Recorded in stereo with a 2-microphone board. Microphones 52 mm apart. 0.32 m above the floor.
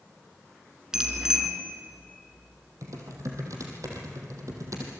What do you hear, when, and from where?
0.9 s a bicycle bell: 10° right (ahead or behind), 3 m
2.8 s typing on a keyboard: 75° right (ahead or behind), 4.5 m